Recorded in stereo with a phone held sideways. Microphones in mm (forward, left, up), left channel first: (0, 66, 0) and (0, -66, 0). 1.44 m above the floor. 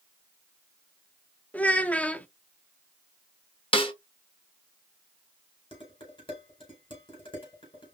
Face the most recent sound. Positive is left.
turn(degrees=40)  # may be behind; listen again after turning